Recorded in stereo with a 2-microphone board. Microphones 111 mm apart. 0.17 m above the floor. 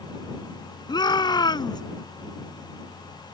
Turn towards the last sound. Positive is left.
turn(degrees=40)  # may be behind; listen again after turning